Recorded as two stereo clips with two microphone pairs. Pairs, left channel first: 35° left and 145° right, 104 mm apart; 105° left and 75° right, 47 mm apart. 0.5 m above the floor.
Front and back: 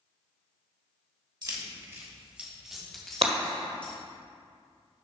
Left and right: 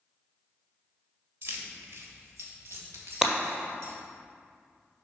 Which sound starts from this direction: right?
Keys jangling, at 1.4 s.